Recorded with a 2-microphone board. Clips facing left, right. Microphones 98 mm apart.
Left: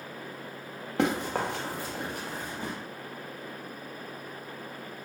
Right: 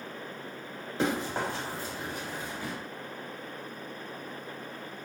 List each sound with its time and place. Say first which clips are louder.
1.0 s running footsteps: left 2 dB; 75° left (ahead or behind), 1.0 m; by 2.7 s 30° left (ahead or behind), 0.9 m